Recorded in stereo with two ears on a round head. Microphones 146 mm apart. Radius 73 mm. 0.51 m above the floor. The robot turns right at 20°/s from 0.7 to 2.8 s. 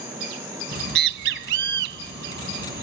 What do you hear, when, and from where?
0.7 s a bird: 70° right (ahead or behind)